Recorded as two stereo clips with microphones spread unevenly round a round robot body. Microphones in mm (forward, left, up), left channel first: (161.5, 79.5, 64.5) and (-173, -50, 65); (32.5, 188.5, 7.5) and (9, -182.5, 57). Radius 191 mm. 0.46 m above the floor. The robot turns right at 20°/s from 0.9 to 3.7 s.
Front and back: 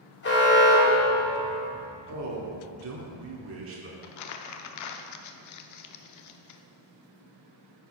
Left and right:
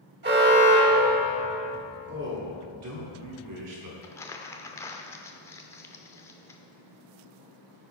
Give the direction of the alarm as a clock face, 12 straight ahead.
1 o'clock.